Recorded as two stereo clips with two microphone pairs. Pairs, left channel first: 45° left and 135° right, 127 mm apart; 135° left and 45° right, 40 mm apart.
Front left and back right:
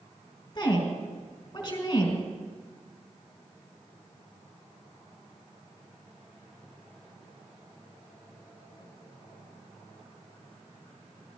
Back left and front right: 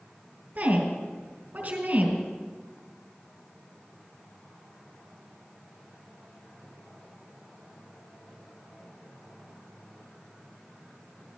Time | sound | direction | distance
0.6 | a woman speaking | 10° right | 4 m